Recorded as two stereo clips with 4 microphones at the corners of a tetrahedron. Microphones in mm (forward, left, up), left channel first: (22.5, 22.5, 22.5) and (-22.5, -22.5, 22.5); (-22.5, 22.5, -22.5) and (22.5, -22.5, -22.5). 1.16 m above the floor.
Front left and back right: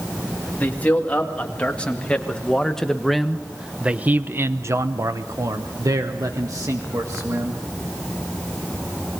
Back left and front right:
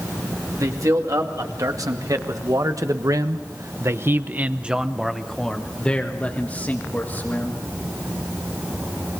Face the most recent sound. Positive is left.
turn(degrees=-170)